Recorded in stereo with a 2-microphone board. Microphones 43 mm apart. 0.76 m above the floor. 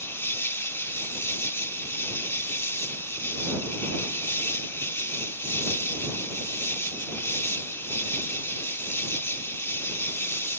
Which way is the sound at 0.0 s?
85° left.